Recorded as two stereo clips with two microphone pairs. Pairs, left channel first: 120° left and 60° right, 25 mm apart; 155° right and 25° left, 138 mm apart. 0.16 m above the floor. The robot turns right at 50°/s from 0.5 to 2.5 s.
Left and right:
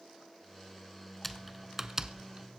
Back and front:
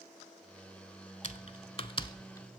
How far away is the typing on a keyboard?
About 0.6 m.